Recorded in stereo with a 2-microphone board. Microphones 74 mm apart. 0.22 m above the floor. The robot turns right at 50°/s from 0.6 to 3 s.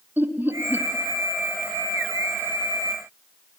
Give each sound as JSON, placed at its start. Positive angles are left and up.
{"t": 0.2, "sound": "laughter", "side_deg": -30, "distance_m": 1.2}